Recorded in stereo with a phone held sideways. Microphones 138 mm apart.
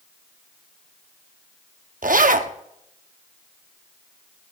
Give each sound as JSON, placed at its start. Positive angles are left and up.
{"t": 2.0, "sound": "a zipper", "side_deg": -80, "distance_m": 0.7}